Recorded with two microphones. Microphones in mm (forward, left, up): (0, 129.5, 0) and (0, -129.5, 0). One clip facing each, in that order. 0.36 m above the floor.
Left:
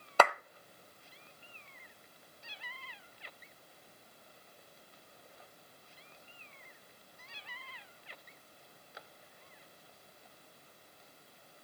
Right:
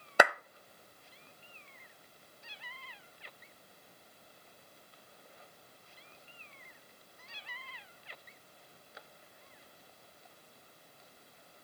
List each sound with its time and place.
0.2 s a clap: 15° right (ahead or behind), 0.7 m